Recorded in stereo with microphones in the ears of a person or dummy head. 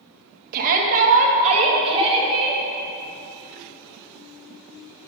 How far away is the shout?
About 1.3 m.